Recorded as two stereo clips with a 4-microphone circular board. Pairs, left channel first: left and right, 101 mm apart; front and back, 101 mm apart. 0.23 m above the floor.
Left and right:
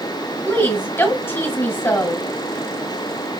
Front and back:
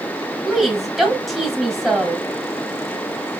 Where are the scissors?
I don't hear scissors.